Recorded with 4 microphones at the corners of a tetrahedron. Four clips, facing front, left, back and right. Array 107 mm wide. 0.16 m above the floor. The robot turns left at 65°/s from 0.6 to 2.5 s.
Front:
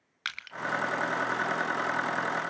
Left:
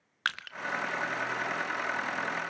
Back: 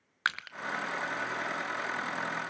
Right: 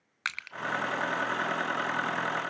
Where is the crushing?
150° left, 0.8 m.